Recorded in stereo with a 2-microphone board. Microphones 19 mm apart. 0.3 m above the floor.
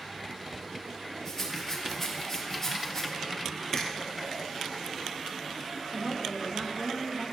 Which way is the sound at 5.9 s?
5° right (ahead or behind).